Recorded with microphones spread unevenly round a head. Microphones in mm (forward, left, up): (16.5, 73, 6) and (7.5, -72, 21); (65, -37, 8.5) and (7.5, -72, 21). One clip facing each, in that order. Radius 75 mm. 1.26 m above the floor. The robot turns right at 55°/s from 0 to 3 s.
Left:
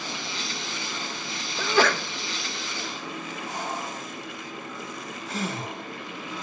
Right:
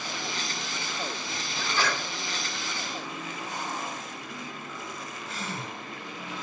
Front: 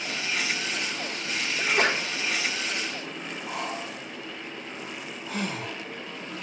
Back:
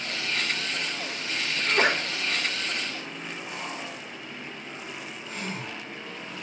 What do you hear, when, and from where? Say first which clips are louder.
1.6 s a sneeze: left 8 dB, back 1 dB; 110° left, 1.6 m; by 2.0 s 135° left, 1.6 m
3.5 s breathing: left 3 dB, front 6 dB; 60° left, 6.5 m